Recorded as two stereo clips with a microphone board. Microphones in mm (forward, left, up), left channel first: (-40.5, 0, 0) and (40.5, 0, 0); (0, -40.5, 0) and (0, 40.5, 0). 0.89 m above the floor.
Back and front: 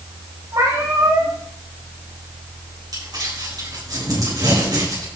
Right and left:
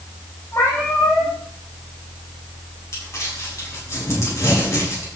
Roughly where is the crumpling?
Ahead right.